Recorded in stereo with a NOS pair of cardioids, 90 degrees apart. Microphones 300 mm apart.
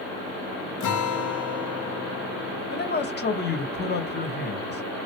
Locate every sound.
0.8 s a guitar: 70° left, 1.7 m
2.7 s a man speaking: 30° left, 1.7 m